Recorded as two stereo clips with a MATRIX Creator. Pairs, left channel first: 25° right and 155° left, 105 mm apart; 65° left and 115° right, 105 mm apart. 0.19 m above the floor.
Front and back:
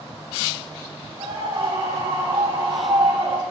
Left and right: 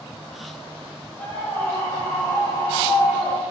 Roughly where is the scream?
Behind left.